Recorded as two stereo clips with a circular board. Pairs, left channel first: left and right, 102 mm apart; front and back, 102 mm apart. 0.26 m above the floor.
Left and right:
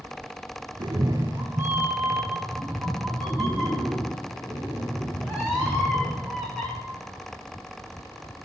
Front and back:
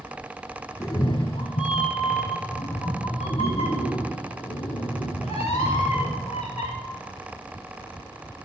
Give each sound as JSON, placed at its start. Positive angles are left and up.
{"t": 0.8, "sound": "a cat meowing", "azimuth_deg": -55, "distance_m": 0.5}